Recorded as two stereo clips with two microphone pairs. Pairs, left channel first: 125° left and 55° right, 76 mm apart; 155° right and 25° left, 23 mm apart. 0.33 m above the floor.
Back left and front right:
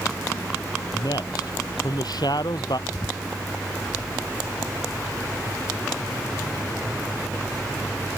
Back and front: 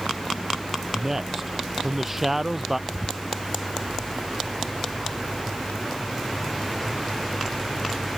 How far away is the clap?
No clap in this recording.